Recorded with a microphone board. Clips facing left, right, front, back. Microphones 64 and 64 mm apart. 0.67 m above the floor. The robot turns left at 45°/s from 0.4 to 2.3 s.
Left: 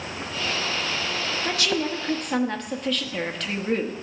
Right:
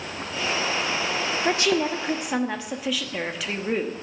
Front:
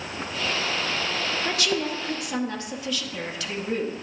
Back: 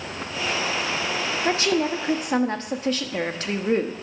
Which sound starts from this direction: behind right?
A woman speaking, at 1.4 s.